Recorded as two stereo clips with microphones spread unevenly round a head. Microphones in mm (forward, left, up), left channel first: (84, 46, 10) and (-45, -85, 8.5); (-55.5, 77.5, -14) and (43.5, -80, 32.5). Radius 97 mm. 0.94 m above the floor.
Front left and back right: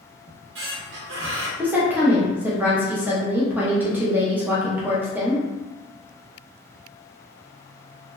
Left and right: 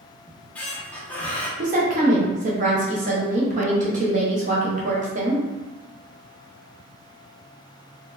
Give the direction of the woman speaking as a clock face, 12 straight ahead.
2 o'clock.